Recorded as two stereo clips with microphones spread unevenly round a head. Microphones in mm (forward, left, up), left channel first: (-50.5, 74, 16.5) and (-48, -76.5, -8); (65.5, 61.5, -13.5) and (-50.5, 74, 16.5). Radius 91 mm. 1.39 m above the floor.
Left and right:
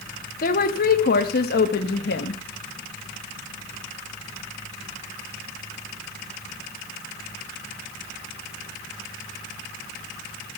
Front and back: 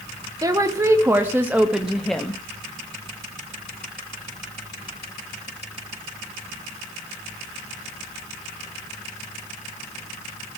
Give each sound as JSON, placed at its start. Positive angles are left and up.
{"t": 0.4, "sound": "a woman speaking", "azimuth_deg": 115, "distance_m": 2.5}